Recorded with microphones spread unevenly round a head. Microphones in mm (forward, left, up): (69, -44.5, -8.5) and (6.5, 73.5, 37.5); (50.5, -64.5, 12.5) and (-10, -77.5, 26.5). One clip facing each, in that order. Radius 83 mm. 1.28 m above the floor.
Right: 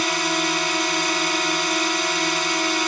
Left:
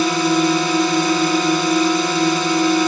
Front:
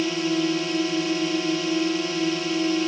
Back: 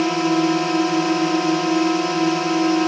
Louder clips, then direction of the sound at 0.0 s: Left 8 dB, back 6 dB; 135° left.